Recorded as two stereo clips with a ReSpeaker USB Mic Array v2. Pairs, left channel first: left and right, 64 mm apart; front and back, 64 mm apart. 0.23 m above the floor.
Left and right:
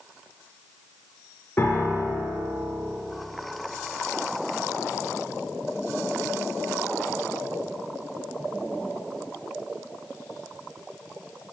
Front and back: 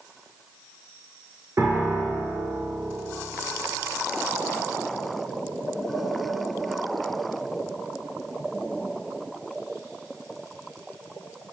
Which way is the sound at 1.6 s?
140° left.